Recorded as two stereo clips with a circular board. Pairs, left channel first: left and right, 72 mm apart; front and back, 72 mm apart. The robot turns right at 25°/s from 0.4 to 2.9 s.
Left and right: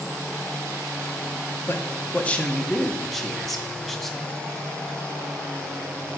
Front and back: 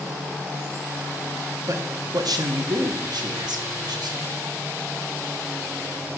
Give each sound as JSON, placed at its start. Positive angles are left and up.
{"t": 1.7, "sound": "a man speaking", "azimuth_deg": 145, "distance_m": 0.9}